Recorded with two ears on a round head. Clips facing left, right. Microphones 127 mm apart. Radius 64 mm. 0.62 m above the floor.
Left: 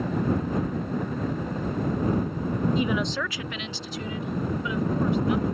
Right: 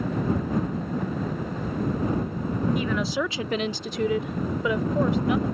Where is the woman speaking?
25° left (ahead or behind); by 5.5 s 60° right (ahead or behind).